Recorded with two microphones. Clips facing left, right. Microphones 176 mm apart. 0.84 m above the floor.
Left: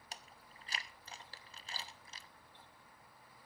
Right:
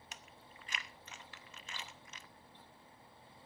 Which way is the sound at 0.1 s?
35° left (ahead or behind).